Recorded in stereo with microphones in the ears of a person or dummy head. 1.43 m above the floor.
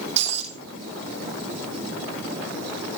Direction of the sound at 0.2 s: 30° right (ahead or behind).